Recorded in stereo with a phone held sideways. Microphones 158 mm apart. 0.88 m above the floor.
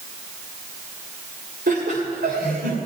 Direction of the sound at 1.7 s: 85° right.